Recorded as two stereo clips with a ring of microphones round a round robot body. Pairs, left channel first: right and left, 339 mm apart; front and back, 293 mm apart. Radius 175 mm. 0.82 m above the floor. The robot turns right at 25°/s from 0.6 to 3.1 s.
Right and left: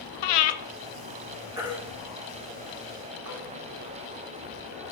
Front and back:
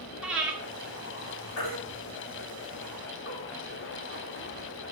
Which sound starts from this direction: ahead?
A baby crying, at 1.6 s.